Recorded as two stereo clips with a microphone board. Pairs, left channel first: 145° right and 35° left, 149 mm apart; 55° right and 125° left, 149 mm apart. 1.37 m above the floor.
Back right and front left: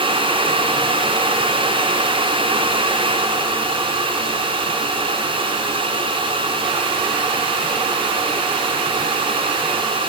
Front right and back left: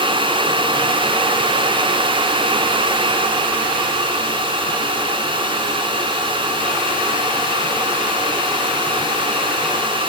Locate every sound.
Only background noise.